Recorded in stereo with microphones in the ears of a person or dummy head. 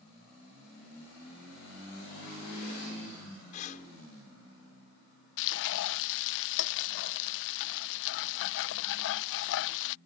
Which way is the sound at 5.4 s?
65° left (ahead or behind).